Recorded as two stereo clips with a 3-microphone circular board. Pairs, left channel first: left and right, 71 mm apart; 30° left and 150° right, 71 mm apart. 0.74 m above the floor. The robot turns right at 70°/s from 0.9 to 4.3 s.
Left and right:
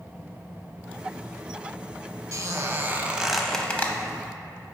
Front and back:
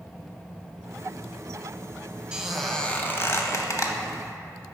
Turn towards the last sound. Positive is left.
turn(degrees=65)